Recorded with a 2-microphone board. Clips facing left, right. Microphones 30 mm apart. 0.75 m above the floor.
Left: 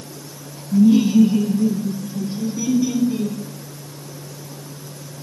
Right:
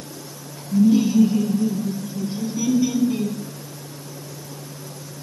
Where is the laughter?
55° left (ahead or behind), 0.9 m; by 3.4 s 10° right (ahead or behind), 3.5 m.